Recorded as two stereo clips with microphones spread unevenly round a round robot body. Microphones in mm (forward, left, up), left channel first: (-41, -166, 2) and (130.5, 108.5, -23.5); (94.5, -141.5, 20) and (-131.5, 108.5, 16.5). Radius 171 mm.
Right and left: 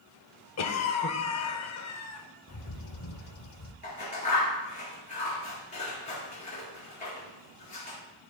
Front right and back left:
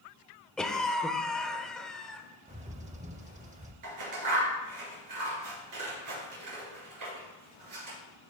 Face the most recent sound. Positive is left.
turn(degrees=165)